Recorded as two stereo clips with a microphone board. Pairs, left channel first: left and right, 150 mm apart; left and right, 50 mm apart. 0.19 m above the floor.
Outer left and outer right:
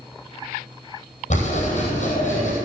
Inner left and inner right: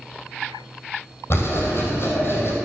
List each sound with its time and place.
1.3 s writing: 50° left (ahead or behind), 4 m